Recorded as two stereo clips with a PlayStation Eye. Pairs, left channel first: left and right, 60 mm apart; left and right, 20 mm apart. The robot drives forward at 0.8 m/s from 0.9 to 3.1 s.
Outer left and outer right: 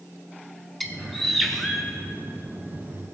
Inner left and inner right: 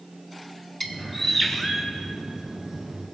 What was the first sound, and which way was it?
A bird, centre (ahead or behind).